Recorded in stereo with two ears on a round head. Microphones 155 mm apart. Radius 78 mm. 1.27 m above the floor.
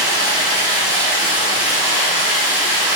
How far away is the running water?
About 1.5 m.